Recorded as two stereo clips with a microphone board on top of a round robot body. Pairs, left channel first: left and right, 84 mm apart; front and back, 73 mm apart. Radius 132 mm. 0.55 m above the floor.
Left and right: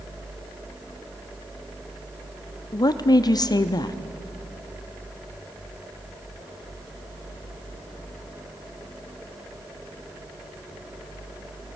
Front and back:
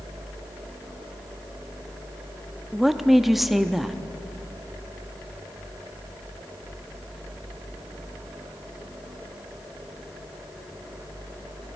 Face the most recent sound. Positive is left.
turn(degrees=90)